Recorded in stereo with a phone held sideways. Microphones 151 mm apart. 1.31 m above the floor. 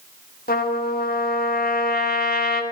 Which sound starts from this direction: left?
A trumpet, at 0.5 s.